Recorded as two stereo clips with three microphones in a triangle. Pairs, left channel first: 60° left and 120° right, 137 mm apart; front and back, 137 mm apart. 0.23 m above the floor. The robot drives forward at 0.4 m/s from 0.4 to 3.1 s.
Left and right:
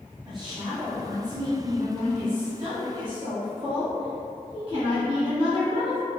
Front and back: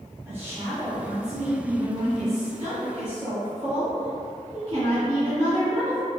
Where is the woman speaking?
120° right, 1.8 m; by 6.0 s 155° right, 2.5 m.